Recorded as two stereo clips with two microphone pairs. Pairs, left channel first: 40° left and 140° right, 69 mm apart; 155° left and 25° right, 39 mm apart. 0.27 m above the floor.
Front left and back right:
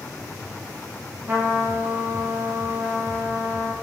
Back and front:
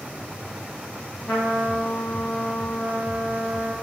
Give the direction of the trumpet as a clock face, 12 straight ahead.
7 o'clock.